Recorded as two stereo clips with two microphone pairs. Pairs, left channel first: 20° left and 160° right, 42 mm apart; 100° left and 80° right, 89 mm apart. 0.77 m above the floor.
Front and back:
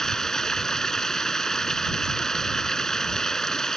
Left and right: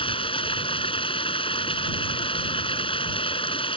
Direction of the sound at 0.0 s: 100° left.